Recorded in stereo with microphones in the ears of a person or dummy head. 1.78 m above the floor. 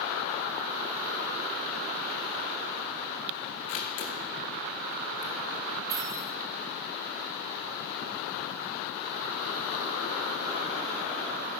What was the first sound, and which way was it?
A camera shutter, 45° left (ahead or behind).